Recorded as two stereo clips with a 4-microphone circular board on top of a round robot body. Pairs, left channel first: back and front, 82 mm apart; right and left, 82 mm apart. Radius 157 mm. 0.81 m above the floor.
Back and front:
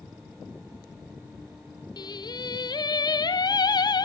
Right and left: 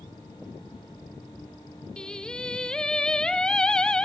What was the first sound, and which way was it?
Singing, 170° right.